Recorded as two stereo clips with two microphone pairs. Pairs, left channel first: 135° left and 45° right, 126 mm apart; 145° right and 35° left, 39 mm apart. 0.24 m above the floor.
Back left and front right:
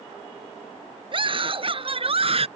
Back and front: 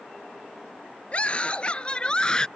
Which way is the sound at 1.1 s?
90° right.